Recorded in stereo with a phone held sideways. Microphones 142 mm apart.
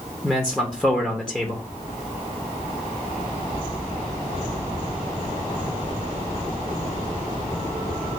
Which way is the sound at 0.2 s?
5° left (ahead or behind).